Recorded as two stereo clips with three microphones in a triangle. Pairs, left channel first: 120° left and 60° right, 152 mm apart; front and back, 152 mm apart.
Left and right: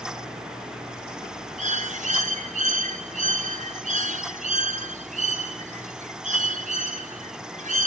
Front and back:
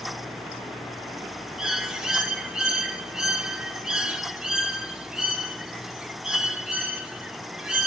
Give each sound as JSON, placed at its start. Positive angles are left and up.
{"t": 1.6, "sound": "a bird", "azimuth_deg": -95, "distance_m": 1.5}